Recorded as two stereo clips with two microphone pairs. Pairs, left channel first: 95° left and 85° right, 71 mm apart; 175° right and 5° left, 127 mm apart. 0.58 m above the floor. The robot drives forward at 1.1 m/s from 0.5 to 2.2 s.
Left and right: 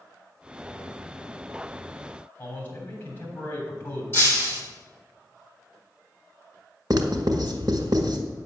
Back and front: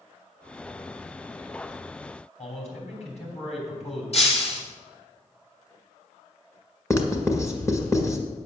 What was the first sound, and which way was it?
A man speaking, 155° left.